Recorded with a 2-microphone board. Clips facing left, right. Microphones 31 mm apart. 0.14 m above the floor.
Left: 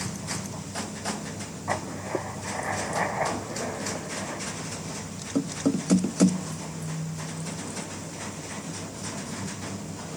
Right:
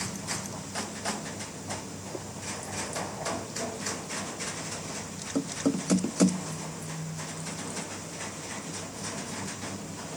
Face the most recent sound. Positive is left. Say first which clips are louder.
# left 11 dB
turn(degrees=70)  # may be behind; listen again after turning